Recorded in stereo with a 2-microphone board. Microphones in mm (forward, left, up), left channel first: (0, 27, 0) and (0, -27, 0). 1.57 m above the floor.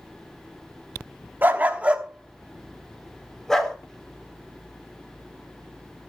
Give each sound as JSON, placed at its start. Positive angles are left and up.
{"t": 1.4, "sound": "a dog barking", "side_deg": -35, "distance_m": 1.3}